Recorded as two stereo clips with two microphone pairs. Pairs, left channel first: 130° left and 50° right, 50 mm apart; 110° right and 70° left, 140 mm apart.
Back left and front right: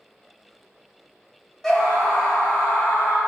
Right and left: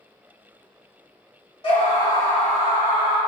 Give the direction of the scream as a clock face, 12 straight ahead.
5 o'clock.